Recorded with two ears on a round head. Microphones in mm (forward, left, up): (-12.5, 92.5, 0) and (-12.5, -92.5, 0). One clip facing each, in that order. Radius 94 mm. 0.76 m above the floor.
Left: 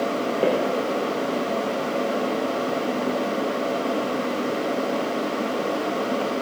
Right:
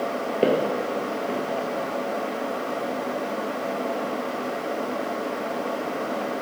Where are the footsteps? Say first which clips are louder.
Right 1 dB; 30° right (ahead or behind), 0.9 m.